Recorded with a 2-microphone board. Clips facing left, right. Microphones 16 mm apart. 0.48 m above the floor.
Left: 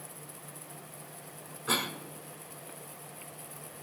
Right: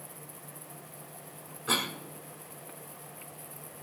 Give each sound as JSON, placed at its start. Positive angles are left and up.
{"t": 1.7, "sound": "a cough", "side_deg": -15, "distance_m": 2.0}